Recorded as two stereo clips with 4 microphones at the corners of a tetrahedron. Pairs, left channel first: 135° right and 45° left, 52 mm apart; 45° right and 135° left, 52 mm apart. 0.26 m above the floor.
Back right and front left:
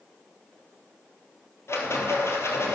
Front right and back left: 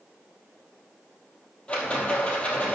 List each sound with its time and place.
1.7 s a rattle: 110° right, 2.5 m